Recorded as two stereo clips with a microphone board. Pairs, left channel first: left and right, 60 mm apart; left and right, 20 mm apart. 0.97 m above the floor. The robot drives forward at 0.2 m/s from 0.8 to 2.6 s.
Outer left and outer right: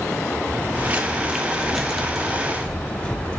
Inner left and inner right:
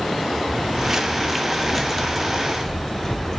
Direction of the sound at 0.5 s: 35° right (ahead or behind).